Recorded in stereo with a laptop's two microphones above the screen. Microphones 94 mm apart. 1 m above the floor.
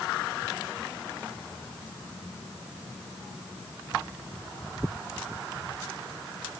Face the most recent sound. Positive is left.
No sound to turn to.